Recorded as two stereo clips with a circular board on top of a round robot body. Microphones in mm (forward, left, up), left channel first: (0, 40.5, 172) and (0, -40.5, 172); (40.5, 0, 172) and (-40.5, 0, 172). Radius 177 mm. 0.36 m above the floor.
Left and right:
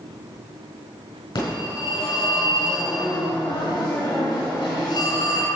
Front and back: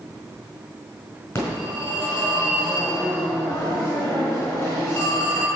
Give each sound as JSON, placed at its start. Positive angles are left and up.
{"t": 1.4, "sound": "a phone ringing", "azimuth_deg": 65, "distance_m": 4.0}